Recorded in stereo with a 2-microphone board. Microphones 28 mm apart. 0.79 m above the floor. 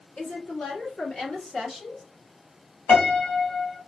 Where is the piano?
55° left (ahead or behind), 1.1 m.